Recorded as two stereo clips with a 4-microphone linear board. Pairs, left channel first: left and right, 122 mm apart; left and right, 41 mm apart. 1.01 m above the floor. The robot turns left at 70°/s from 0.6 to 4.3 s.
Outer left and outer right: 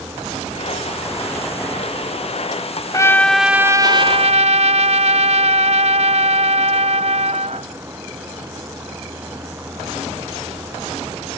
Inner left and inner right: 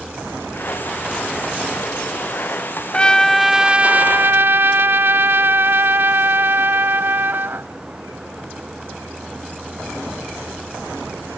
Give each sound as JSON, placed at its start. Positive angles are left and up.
{"t": 2.9, "sound": "a trumpet", "azimuth_deg": 30}